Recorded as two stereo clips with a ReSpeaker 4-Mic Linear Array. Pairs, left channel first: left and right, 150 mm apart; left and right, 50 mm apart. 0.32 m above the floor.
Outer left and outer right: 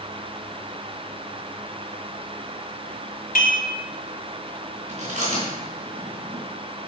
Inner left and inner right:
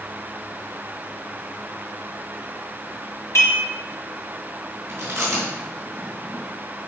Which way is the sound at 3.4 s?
70° left (ahead or behind).